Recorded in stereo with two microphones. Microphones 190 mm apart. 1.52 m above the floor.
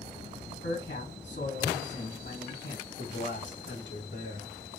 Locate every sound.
0.5 s a man speaking: 70° left (ahead or behind), 1.5 m
3.0 s a man speaking: 80° left, 1.3 m